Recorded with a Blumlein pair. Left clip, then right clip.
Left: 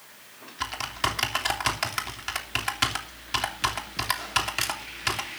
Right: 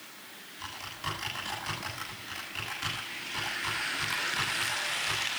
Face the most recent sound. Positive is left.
turn(degrees=55)